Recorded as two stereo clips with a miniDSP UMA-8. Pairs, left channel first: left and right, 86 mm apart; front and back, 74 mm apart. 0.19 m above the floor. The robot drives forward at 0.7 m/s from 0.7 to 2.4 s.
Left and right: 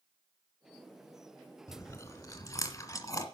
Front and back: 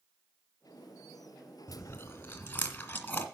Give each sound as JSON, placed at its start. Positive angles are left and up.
{"t": 1.7, "sound": "chewing", "azimuth_deg": 45, "distance_m": 2.0}